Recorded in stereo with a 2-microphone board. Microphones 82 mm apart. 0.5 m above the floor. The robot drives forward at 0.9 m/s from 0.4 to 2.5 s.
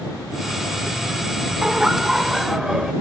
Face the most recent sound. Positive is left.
turn(degrees=-5)  # may be behind; listen again after turning